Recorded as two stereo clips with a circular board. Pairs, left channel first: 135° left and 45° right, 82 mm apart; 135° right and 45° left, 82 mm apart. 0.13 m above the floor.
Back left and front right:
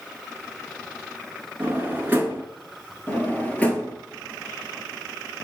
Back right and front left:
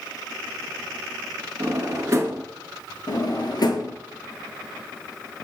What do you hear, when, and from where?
1.6 s a drawer: 10° left, 0.7 m
3.1 s a drawer: 155° right, 0.7 m